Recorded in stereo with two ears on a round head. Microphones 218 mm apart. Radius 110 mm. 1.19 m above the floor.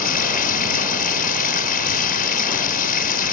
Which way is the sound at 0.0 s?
40° left (ahead or behind).